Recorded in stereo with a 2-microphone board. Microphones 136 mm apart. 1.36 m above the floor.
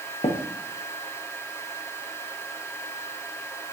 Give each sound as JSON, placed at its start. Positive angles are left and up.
{"t": 0.2, "sound": "tapping", "side_deg": 45, "distance_m": 0.8}